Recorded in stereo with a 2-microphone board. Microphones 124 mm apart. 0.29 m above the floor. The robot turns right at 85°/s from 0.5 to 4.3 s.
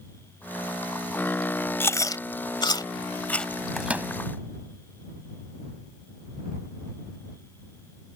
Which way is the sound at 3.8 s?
Centre (ahead or behind).